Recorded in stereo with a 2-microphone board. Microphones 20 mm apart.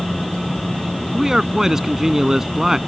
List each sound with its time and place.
1.1 s a man speaking: 25° right (ahead or behind)